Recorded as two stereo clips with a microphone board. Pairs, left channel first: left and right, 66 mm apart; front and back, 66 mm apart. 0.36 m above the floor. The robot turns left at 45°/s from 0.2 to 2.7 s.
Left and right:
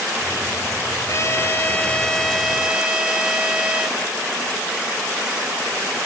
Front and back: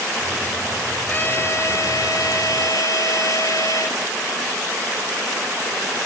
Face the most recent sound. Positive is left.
turn(degrees=-15)